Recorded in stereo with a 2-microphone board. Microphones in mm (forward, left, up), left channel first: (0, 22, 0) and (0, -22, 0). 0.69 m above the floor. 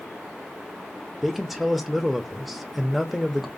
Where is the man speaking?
Centre (ahead or behind), 0.7 m.